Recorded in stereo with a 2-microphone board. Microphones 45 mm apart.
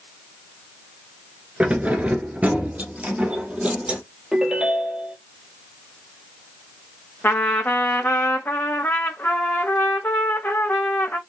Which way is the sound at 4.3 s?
15° right (ahead or behind).